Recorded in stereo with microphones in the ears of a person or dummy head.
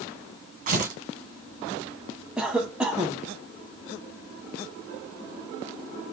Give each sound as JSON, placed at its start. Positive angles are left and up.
{"t": 0.7, "sound": "tearing paper", "side_deg": -45, "distance_m": 1.3}
{"t": 2.4, "sound": "a cough", "side_deg": -5, "distance_m": 0.7}